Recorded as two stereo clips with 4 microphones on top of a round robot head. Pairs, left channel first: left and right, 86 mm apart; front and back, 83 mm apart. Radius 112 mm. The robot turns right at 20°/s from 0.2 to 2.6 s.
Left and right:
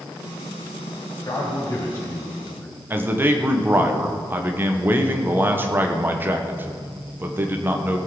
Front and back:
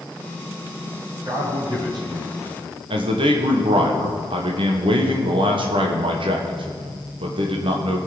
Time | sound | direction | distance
1.2 | a man speaking | 135° left | 4 m
2.9 | a man speaking | 155° right | 1.4 m